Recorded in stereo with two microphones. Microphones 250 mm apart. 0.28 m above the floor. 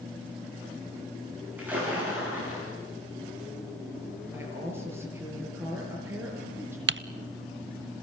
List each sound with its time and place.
1.6 s a splash: 5° right (ahead or behind), 9.5 m
4.3 s a woman speaking: 10° right (ahead or behind), 6 m
6.9 s typing on a keyboard: 55° right (ahead or behind), 0.5 m